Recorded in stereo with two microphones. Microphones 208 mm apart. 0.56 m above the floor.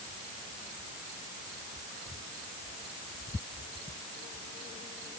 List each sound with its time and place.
Only background noise.